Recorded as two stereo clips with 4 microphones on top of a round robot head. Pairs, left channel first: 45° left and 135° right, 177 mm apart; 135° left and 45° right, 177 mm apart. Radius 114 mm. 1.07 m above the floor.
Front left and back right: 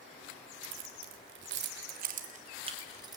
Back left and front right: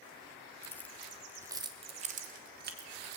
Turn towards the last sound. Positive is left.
turn(degrees=-70)